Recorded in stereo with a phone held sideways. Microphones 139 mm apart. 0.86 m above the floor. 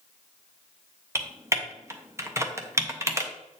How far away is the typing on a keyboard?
About 0.9 m.